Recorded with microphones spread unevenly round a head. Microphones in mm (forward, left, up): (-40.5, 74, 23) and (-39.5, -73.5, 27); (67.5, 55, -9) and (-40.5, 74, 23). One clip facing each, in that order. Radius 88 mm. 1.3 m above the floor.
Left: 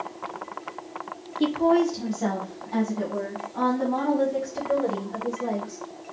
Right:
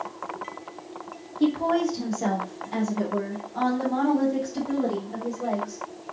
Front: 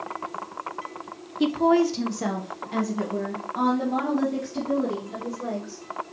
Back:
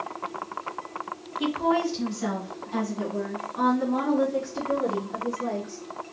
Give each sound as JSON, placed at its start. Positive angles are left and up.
{"t": 1.4, "sound": "a woman speaking", "azimuth_deg": 25, "distance_m": 0.6}